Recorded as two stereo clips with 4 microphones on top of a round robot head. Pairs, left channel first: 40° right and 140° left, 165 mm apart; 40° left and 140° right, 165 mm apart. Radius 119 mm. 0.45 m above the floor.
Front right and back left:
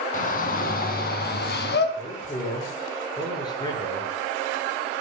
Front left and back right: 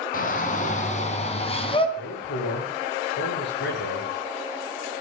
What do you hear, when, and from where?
0.1 s a shout: straight ahead, 5.5 m; by 1.9 s 20° right, 5 m
2.0 s a man speaking: 30° left, 7.5 m